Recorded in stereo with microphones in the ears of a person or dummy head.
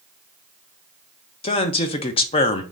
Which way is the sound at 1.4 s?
30° left (ahead or behind).